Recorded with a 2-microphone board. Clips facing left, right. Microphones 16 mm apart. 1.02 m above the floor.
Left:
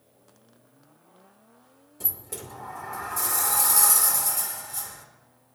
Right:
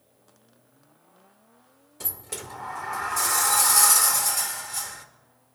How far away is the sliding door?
About 0.8 m.